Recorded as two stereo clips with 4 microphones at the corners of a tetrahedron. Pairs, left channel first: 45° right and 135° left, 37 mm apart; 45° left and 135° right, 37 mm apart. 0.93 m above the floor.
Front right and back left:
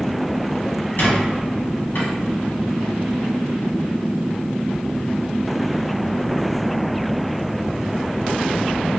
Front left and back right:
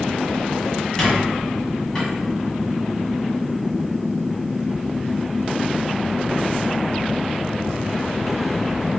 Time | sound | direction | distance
1.0 | a squeak | 30° right | 1.6 m